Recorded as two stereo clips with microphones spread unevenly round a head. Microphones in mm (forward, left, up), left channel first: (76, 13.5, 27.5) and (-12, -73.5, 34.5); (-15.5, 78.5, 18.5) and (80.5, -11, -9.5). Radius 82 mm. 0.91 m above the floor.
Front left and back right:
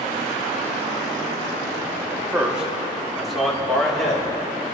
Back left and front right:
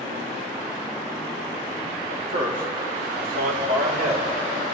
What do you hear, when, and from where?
2.1 s a man speaking: 60° right, 1.6 m; by 4.3 s 40° right, 3.5 m